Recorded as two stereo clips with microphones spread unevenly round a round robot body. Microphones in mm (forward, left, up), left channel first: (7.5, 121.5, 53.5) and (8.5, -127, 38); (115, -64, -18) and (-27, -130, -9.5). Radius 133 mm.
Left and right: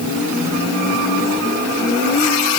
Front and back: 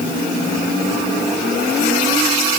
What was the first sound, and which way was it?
Only background noise.